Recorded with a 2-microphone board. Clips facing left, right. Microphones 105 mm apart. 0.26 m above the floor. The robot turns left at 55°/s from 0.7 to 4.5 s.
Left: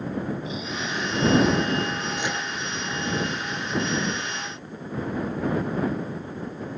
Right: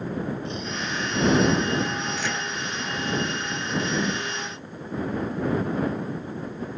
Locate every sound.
0.5 s snoring: 175° left; by 1.5 s 130° left
2.2 s a microwave: 25° left (ahead or behind); by 2.5 s 10° left (ahead or behind)
3.9 s a whoosh: 5° right (ahead or behind); by 4.2 s 10° left (ahead or behind)